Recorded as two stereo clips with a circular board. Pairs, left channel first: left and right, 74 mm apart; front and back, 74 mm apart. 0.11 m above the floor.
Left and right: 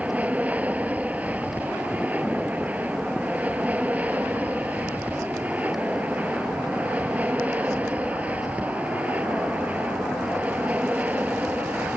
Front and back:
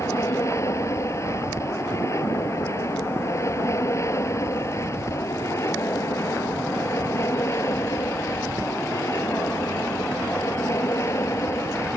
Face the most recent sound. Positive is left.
turn(degrees=-30)